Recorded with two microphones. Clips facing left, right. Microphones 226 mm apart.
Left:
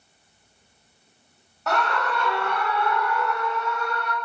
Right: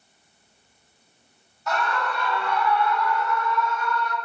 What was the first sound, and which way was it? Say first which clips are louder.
A scream: left 2 dB; 65° left (ahead or behind).